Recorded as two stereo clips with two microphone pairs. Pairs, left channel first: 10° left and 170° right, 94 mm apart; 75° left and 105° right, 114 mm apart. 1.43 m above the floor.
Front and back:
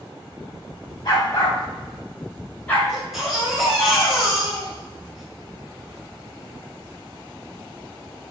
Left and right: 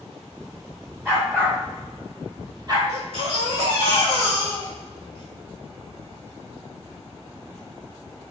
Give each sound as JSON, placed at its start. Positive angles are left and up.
{"t": 1.1, "sound": "a dog barking", "azimuth_deg": -35, "distance_m": 3.0}
{"t": 2.9, "sound": "a baby crying", "azimuth_deg": -85, "distance_m": 2.5}